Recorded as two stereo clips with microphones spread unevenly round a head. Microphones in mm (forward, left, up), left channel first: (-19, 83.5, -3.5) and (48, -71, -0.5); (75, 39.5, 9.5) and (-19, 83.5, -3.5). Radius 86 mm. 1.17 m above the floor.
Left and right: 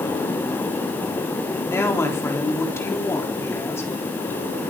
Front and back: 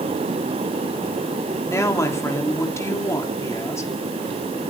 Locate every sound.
1.7 s a woman speaking: 40° left, 3.5 m